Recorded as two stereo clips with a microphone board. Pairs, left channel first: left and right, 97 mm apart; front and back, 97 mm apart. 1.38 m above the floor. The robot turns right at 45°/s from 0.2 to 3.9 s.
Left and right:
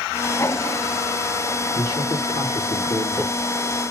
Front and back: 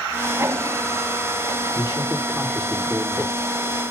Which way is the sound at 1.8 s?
45° left.